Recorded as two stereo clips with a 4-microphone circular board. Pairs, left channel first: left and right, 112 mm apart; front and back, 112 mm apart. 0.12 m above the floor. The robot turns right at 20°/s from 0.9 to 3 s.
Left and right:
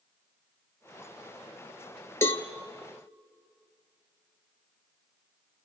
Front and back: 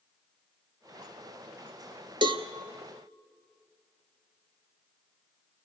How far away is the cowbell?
About 0.9 m.